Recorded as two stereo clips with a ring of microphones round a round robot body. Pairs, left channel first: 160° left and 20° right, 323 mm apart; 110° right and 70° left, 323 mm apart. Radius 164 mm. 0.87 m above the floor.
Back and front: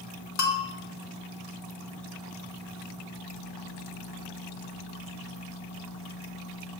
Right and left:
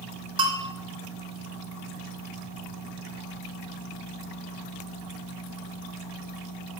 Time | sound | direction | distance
0.4 | a bell | 135° left | 0.9 m